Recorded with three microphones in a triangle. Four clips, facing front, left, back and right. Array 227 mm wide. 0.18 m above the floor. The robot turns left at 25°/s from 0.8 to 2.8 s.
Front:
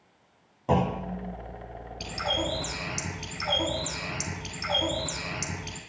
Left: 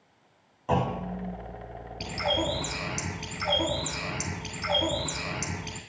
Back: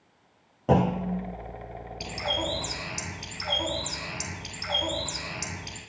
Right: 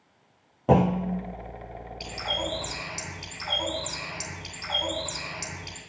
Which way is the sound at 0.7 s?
110° right.